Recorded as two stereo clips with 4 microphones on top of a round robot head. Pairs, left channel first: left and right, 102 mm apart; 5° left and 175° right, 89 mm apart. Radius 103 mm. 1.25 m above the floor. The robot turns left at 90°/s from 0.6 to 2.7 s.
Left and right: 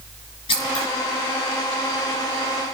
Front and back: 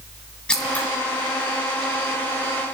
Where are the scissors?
80° left, 1.4 m; by 0.9 s 55° left, 1.4 m.